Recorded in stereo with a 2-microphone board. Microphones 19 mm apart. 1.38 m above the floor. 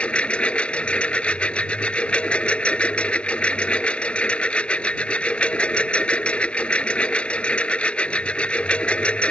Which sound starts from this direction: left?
A lawn mower, at 0.0 s.